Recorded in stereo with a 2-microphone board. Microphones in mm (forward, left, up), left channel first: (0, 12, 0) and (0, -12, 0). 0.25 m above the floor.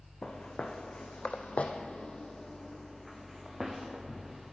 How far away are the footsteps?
About 1.4 m.